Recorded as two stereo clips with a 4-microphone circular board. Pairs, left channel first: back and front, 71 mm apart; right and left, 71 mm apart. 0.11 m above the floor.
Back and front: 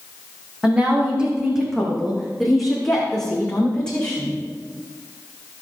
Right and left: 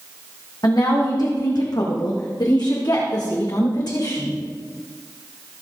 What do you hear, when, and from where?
0.6 s a woman speaking: 70° right, 6.5 m; by 4.4 s 105° right, 9 m